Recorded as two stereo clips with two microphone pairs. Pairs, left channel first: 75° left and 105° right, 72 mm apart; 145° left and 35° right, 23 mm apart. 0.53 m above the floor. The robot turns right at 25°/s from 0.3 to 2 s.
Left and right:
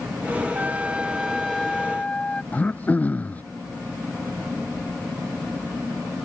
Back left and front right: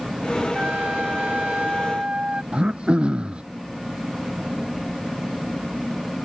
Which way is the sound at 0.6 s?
40° right.